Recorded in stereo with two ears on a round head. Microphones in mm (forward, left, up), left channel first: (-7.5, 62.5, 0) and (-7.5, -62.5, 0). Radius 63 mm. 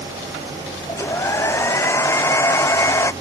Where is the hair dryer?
20° left (ahead or behind).